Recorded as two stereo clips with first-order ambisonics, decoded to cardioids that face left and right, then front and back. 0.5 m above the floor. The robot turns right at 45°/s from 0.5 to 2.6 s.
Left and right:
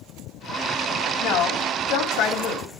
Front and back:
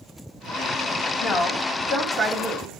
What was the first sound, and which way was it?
A woman speaking, 45° left.